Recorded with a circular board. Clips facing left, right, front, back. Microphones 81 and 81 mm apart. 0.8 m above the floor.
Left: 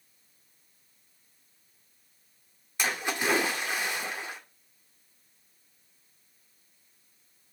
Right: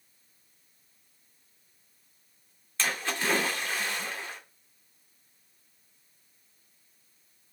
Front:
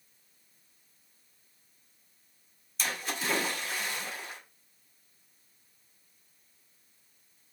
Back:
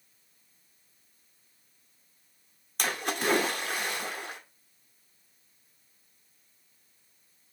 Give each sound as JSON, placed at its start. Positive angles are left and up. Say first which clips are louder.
{"t": 2.8, "sound": "a splash", "louder": "left 1 dB, back 5 dB", "azimuth_deg": 165, "distance_m": 2.0}